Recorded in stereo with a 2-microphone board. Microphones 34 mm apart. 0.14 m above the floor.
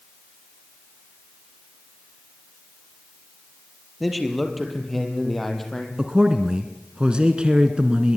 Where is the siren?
I don't hear a siren.